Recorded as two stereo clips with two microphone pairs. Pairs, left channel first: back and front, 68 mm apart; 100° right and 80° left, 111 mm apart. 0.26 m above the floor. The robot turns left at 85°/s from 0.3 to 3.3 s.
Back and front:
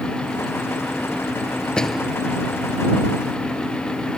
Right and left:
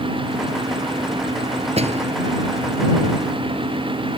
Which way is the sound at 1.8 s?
100° left.